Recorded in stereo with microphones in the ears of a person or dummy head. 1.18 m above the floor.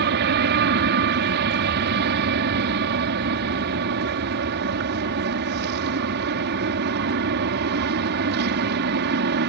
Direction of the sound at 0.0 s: 60° right (ahead or behind).